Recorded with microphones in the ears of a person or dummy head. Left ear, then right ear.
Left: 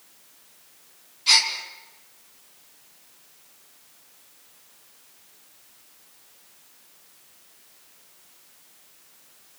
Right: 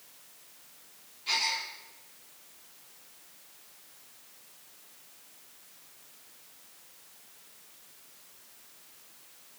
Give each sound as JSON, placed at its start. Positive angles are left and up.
{"t": 1.3, "sound": "a gasp", "side_deg": 45, "distance_m": 5.5}